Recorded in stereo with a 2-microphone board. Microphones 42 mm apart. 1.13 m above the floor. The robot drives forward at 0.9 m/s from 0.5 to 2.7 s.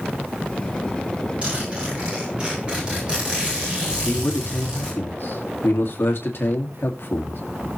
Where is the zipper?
30° right (ahead or behind), 7.5 m; by 4.9 s 25° right (ahead or behind), 8.5 m.